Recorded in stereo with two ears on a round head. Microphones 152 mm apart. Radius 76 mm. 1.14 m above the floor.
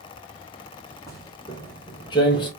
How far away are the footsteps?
About 1.6 m.